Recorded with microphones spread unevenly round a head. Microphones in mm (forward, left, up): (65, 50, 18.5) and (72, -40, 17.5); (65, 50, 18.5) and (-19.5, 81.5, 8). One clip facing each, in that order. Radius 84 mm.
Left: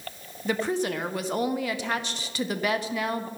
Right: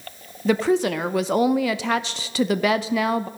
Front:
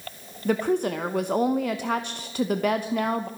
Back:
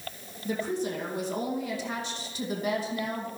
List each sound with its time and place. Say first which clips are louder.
0.5 s a woman speaking: right 7 dB, front 7 dB; 80° right, 0.7 m